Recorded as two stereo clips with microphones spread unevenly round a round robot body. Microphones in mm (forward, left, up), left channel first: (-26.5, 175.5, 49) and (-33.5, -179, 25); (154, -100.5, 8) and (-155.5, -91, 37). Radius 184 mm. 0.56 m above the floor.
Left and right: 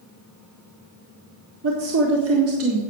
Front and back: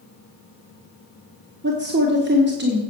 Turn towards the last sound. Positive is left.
turn(degrees=-125)